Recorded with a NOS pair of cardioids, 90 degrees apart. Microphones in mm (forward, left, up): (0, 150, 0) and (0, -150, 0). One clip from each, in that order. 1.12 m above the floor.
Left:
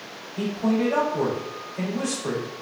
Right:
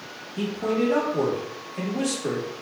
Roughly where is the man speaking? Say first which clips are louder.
Even; ahead right.